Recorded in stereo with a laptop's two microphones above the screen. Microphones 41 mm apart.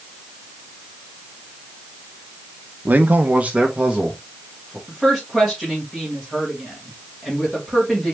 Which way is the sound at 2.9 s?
45° right (ahead or behind).